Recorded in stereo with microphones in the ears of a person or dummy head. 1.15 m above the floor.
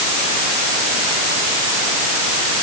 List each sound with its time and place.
Only background noise.